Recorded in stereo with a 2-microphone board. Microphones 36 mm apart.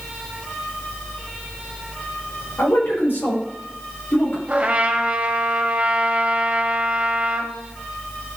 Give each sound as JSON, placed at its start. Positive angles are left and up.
{"t": 2.6, "sound": "a man speaking", "side_deg": 80, "distance_m": 5.0}
{"t": 4.5, "sound": "a trumpet", "side_deg": -30, "distance_m": 1.8}